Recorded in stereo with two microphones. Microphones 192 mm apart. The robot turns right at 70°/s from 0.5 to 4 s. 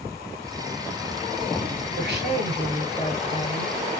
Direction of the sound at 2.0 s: 80° right.